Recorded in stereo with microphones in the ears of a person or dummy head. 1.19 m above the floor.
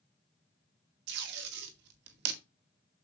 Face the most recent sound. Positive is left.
turn(degrees=-60)  # may be behind; listen again after turning